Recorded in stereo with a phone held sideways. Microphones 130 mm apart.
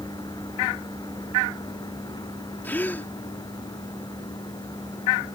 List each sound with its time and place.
0.0 s a vehicle: 35° left (ahead or behind)
2.6 s a gasp: 15° left (ahead or behind)